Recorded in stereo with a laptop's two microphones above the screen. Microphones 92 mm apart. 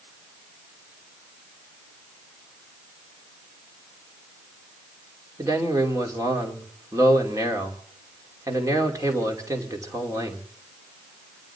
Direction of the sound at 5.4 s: 35° right (ahead or behind).